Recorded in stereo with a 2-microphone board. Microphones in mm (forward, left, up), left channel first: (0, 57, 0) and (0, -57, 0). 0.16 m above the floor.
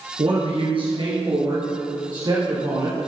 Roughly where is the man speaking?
Right.